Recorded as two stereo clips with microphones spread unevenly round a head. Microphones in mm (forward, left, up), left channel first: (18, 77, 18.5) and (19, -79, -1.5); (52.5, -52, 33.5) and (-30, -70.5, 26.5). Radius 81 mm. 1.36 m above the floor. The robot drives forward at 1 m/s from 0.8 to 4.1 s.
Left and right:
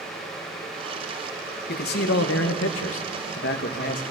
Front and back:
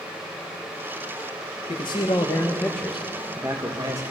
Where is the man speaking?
60° left, 1.8 m; by 4.0 s 135° left, 2 m.